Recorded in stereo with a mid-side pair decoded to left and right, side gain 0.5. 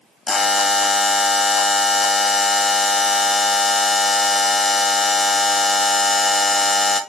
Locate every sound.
0.3 s a buzzer: 30° left, 0.8 m